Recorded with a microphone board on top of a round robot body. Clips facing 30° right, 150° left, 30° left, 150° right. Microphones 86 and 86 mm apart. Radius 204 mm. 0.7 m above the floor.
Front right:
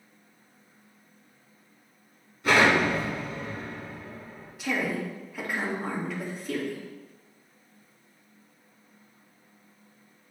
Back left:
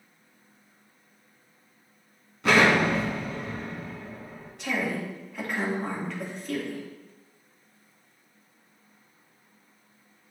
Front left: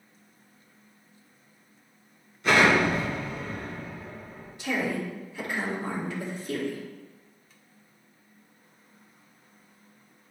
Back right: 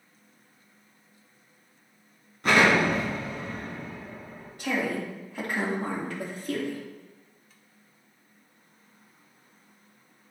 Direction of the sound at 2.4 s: 165° left.